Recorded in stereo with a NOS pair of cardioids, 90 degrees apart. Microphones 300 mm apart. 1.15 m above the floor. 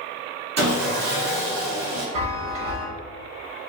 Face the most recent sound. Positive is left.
turn(degrees=-50)